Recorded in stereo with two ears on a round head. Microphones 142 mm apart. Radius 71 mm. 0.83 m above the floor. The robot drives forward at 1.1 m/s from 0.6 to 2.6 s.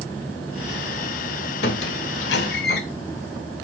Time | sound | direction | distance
1.6 | a squeak | 70° left (ahead or behind) | 1.5 m